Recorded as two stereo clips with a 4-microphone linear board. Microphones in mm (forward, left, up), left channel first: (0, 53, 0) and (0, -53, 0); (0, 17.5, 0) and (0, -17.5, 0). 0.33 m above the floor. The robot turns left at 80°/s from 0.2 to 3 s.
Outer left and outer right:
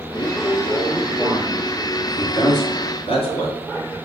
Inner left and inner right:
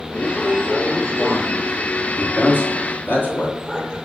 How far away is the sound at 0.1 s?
About 3 m.